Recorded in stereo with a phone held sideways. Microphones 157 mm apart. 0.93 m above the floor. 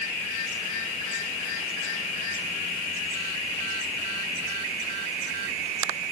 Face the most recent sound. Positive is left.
No sound to turn to.